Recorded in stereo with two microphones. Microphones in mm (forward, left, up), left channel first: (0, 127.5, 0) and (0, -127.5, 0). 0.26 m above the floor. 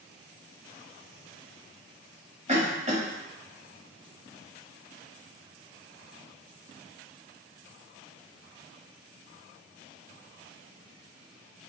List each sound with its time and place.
2.5 s a cough: 25° right (ahead or behind), 1.0 m